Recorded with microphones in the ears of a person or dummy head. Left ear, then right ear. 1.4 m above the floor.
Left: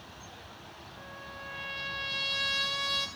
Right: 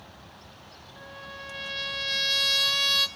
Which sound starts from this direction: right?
A trumpet, at 1.0 s.